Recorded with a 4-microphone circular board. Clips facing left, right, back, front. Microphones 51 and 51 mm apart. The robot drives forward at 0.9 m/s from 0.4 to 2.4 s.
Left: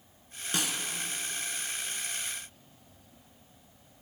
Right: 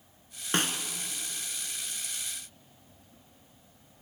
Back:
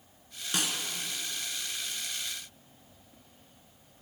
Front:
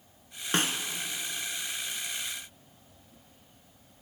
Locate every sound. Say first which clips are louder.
0.5 s a snare drum: right 4 dB, front 4 dB; 45° right, 0.8 m; by 0.8 s 55° right, 0.7 m